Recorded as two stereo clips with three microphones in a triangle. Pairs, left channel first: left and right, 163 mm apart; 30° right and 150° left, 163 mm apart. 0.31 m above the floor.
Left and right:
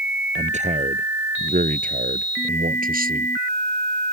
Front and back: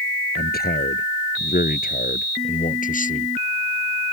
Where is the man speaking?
45° right; by 3.3 s 65° right.